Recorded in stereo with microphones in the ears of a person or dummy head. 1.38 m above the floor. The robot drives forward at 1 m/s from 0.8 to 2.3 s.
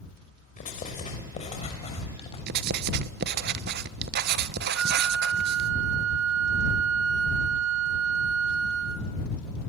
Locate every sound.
0.6 s writing: 35° left (ahead or behind), 5 m; by 2.4 s 30° left (ahead or behind), 6.5 m
2.5 s writing: 55° right (ahead or behind), 1.3 m
4.8 s a flute: 65° right (ahead or behind), 1.0 m